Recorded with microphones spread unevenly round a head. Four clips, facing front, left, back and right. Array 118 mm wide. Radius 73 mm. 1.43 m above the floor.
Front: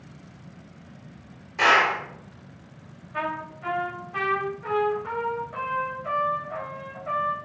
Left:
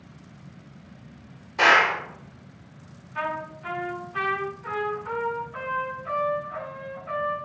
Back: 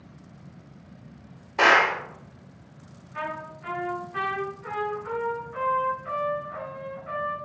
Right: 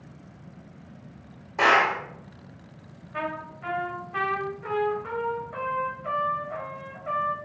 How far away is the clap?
About 2.5 m.